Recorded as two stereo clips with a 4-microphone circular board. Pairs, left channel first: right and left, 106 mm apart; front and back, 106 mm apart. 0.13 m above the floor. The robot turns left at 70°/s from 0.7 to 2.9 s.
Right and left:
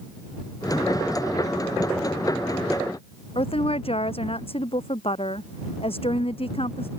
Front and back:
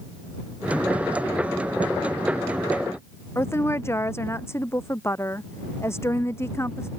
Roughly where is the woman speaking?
Ahead right.